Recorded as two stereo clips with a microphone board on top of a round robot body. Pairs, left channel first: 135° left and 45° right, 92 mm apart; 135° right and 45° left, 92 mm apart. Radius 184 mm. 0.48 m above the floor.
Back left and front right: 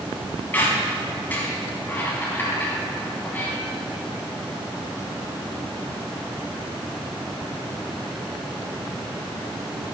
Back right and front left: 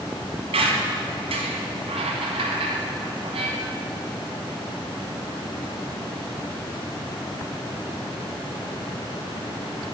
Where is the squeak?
60° left, 0.8 m.